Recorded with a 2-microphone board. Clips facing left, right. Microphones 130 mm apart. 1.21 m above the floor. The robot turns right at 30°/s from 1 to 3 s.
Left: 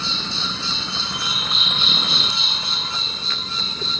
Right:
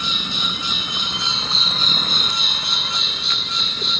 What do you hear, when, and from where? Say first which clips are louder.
0.0 s an insect: right 1 dB; 165° right; by 4.0 s 105° right